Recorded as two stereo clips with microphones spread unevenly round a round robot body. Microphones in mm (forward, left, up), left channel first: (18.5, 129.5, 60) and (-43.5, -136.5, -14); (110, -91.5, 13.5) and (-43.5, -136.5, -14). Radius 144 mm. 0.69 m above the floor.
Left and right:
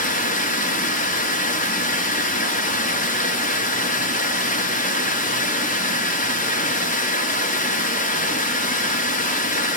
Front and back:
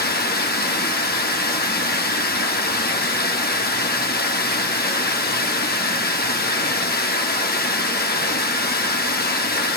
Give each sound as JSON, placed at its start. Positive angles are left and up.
{"t": 0.0, "sound": "running water", "azimuth_deg": 10, "distance_m": 1.1}